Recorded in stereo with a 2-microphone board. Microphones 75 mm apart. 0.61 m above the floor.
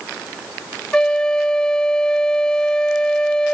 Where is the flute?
10° left (ahead or behind).